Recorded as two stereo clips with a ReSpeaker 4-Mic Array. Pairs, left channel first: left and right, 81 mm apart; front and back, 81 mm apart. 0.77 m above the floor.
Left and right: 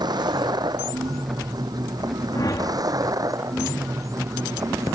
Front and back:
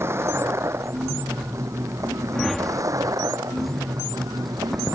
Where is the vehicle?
120° right; by 5.0 s 140° right.